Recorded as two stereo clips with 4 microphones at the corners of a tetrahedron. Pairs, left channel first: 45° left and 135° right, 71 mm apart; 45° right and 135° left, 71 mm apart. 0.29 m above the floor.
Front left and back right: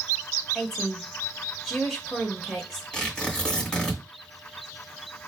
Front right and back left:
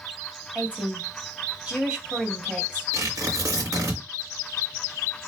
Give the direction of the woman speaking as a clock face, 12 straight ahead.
8 o'clock.